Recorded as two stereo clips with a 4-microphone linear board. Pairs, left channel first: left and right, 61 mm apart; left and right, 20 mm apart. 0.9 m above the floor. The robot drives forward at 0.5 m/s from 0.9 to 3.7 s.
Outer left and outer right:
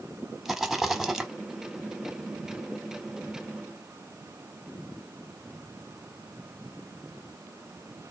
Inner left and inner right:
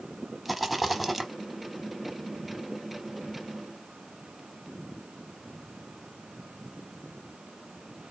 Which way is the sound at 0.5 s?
5° right (ahead or behind).